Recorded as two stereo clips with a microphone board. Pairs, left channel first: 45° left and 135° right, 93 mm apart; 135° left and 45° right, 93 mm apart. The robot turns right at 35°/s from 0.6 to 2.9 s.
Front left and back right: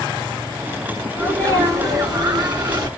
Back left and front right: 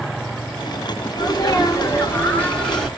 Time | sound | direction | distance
1.1 | a sneeze | 160° left | 2.5 m